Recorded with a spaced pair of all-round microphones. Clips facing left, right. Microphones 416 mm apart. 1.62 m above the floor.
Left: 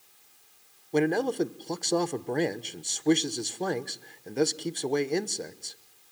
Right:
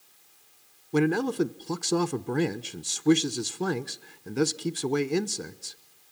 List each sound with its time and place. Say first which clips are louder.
0.9 s a man speaking: right 1 dB; 20° right (ahead or behind), 0.9 m